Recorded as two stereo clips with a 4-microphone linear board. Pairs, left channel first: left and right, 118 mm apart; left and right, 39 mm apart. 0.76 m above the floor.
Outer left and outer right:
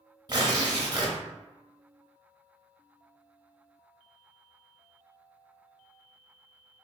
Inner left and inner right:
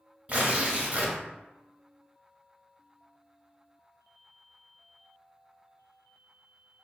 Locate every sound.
0.3 s tearing paper: 35° right (ahead or behind), 0.8 m